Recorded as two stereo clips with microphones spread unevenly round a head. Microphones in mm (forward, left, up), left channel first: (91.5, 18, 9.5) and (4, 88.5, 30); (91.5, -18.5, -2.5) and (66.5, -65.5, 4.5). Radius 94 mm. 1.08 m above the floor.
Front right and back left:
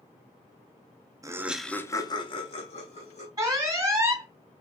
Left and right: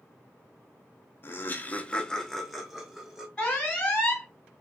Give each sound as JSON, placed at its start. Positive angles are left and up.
{"t": 1.2, "sound": "laughter", "azimuth_deg": 75, "distance_m": 0.7}
{"t": 3.4, "sound": "an alarm", "azimuth_deg": 90, "distance_m": 1.1}